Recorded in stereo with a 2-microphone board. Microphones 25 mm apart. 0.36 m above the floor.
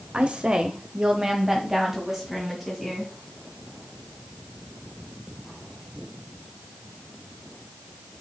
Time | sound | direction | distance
0.1 | a woman speaking | 45° right (ahead or behind) | 1.3 m